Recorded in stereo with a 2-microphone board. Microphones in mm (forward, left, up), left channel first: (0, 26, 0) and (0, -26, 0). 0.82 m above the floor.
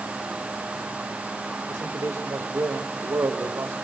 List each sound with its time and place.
1.7 s a man speaking: 70° right (ahead or behind), 1.6 m